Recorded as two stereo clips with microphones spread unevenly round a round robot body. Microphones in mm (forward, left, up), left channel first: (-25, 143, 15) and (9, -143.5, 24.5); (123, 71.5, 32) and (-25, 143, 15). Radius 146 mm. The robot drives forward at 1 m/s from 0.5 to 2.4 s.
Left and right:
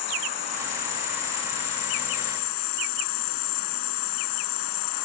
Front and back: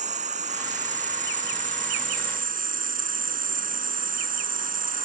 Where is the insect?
110° left; by 5.1 s 115° left.